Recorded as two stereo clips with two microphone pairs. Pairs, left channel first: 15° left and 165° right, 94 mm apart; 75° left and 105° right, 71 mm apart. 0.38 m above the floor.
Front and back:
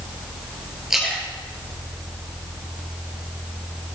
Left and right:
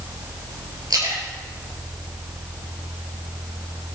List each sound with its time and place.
0.9 s a splash: 80° right, 4 m